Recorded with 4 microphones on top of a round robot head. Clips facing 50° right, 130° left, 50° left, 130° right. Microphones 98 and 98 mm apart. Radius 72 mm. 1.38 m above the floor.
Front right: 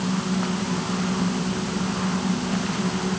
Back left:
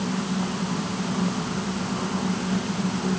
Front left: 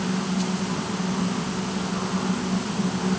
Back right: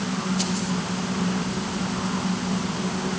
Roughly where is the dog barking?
No dog barking in this recording.